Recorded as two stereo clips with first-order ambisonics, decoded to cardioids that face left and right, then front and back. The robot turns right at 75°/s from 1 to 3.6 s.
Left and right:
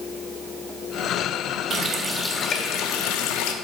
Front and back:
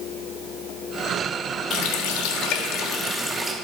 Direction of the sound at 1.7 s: 35° right.